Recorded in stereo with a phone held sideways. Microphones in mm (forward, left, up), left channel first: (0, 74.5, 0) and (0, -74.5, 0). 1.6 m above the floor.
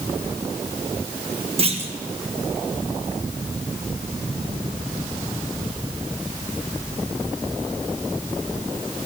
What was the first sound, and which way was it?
A clunk, 40° right (ahead or behind).